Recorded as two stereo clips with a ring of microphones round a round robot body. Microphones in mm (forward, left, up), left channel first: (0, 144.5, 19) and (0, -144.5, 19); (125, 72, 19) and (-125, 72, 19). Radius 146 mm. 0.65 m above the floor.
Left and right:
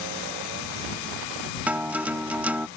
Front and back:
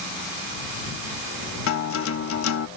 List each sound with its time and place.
1.7 s a guitar: 5° right